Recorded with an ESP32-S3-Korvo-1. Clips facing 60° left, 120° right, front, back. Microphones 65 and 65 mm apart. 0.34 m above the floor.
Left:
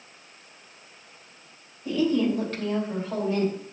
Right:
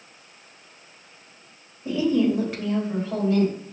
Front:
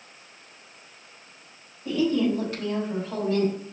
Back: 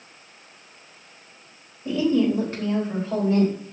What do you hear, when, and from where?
1.9 s a woman speaking: 150° right, 1.3 m; by 3.5 s 140° left, 1.8 m